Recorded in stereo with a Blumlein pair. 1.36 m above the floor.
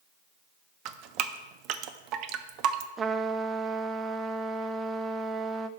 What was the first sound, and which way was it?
Dripping, 40° right.